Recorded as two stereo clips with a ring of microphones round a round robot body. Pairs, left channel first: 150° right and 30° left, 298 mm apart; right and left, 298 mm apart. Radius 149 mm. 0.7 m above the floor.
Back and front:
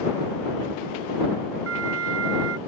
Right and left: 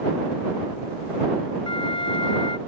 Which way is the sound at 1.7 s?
15° right.